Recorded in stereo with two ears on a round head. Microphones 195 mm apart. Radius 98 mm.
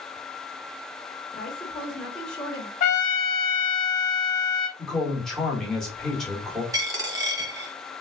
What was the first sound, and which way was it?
A woman speaking, 5° left (ahead or behind).